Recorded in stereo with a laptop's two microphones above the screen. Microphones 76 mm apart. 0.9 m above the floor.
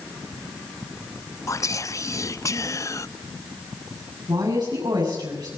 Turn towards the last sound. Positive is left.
turn(degrees=-65)  # may be behind; listen again after turning